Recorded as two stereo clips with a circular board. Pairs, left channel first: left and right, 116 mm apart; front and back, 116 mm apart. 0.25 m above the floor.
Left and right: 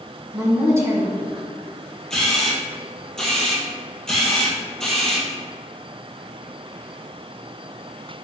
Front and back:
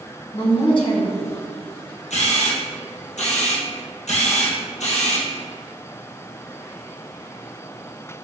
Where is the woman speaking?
30° right, 2.5 m.